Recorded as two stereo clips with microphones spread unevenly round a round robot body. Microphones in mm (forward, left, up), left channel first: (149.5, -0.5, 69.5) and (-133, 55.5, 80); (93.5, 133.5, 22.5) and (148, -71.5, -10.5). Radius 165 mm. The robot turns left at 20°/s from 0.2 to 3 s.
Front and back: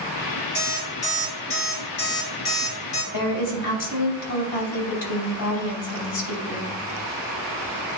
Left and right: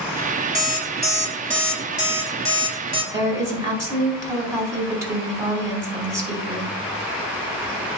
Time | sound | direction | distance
0.6 | an alarm clock | 40° left | 3.5 m
3.1 | a woman speaking | straight ahead | 3.5 m